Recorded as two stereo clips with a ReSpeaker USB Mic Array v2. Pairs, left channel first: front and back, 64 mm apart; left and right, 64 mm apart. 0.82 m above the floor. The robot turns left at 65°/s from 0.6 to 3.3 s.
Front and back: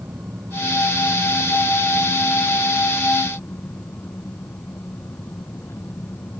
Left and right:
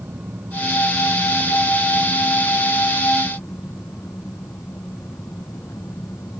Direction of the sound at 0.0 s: 135° right.